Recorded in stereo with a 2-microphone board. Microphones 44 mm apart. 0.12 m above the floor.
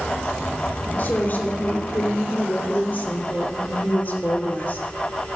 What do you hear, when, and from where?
1.0 s a woman speaking: 45° left (ahead or behind), 2.5 m